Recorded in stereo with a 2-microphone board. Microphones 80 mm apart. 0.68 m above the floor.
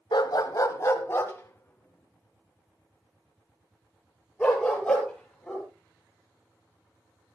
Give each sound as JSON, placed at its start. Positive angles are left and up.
{"t": 0.1, "sound": "a dog barking", "side_deg": 65, "distance_m": 1.3}